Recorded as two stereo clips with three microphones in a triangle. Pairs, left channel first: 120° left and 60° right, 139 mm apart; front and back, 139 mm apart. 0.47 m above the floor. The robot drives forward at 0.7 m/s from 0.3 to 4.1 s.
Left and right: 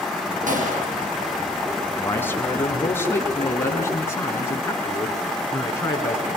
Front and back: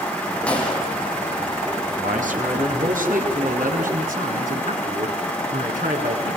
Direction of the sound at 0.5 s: 80° right.